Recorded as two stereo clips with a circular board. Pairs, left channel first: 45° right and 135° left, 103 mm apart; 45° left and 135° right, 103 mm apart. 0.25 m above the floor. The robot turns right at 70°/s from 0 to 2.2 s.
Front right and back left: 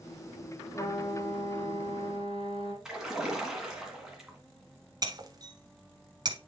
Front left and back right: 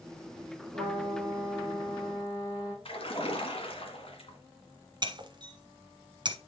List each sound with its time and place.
0.7 s a trumpet: 115° right, 3.5 m; by 2.8 s 10° right, 3.5 m
2.9 s a splash: 50° left, 1.9 m
5.0 s breaking glass: straight behind, 1.0 m